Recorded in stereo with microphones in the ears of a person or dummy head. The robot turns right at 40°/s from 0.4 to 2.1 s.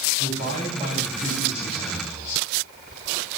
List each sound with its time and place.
0.2 s a man speaking: 35° right, 10 m; by 2.4 s 35° left, 10 m